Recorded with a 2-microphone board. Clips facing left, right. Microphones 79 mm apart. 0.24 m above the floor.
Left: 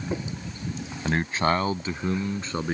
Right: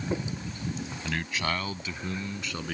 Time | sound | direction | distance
1.1 | a man speaking | 35° left (ahead or behind) | ?